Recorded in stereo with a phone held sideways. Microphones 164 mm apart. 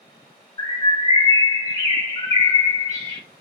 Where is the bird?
25° left (ahead or behind), 0.9 m.